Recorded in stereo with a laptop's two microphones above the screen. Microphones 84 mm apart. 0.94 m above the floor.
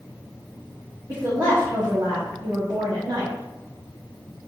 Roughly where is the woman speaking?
Right.